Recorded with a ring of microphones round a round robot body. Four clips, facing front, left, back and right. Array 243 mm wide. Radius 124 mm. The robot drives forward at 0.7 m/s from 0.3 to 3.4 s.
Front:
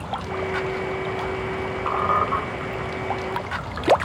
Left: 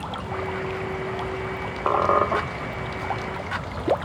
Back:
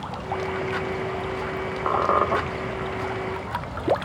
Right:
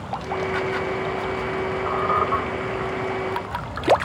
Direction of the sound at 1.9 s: 115° left.